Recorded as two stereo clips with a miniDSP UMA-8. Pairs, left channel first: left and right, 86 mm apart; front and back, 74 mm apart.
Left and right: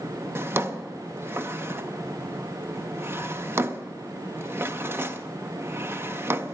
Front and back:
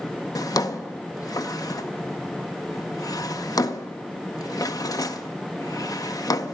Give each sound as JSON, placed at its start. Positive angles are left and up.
{"t": 0.3, "sound": "a drawer", "azimuth_deg": -30, "distance_m": 0.6}